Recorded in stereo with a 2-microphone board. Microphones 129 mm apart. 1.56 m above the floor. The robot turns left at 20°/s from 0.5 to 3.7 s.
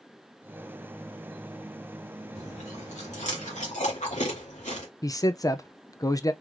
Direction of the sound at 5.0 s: 30° left (ahead or behind).